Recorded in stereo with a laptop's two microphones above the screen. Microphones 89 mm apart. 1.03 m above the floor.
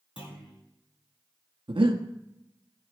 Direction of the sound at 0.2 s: 85° left.